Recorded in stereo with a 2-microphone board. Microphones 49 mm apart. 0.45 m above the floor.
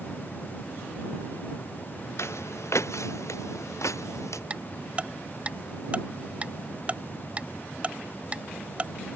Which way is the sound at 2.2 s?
65° left (ahead or behind).